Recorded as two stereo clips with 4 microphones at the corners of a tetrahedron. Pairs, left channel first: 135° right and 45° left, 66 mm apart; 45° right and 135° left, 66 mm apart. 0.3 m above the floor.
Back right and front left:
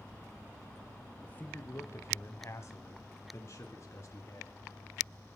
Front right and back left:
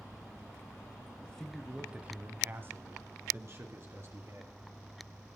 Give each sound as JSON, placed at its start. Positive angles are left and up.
{"t": 1.2, "sound": "a man speaking", "azimuth_deg": -90, "distance_m": 1.2}